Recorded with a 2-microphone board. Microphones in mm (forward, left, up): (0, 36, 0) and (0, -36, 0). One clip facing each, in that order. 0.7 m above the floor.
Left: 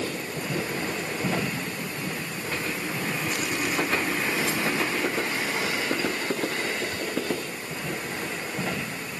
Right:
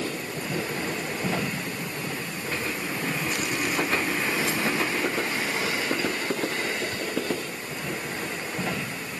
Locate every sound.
Only background noise.